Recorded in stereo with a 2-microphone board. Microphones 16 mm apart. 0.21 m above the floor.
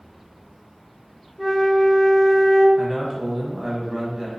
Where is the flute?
5° right (ahead or behind), 0.7 m.